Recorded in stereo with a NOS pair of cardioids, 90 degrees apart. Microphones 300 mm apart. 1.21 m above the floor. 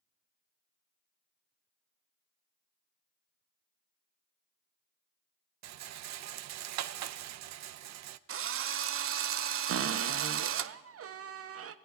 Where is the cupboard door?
50° right, 0.8 m.